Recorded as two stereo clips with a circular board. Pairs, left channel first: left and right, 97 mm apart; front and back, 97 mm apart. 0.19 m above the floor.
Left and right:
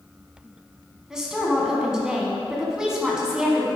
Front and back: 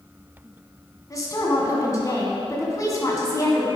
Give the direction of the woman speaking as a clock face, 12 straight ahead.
12 o'clock.